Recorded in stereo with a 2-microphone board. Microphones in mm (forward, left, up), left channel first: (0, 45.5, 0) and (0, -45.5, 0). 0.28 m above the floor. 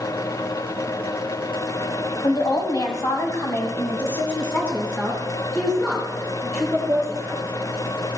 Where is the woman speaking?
45° left (ahead or behind), 1.9 m; by 7.4 s centre (ahead or behind), 4.5 m.